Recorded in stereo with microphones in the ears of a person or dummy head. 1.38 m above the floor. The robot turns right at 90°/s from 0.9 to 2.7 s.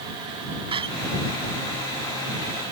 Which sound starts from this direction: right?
A door slam, at 0.7 s.